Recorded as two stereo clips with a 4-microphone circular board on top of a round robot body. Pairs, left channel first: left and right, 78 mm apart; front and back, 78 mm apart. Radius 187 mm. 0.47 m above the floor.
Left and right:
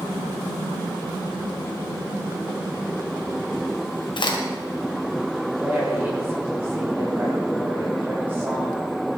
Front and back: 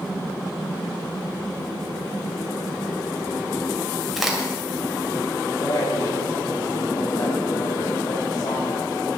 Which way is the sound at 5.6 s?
25° right.